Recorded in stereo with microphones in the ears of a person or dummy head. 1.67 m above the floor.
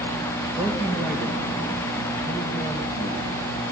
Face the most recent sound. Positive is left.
turn(degrees=-10)  # may be behind; listen again after turning